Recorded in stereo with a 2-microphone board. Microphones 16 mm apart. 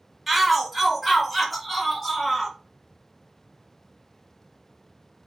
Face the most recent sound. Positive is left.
turn(degrees=10)  # may be behind; listen again after turning